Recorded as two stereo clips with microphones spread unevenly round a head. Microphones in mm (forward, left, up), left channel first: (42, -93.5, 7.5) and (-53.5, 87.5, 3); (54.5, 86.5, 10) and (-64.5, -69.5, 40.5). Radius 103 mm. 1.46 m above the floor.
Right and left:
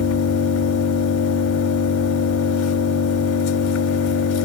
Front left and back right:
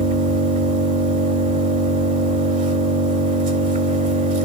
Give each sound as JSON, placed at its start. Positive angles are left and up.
{"t": 0.0, "sound": "an engine running", "azimuth_deg": -75, "distance_m": 4.0}